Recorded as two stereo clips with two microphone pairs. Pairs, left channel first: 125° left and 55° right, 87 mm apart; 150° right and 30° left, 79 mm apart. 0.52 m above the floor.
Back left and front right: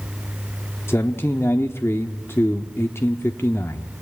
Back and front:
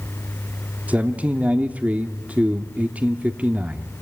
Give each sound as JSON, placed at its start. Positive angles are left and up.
{"t": 0.9, "sound": "a man speaking", "azimuth_deg": 85, "distance_m": 0.9}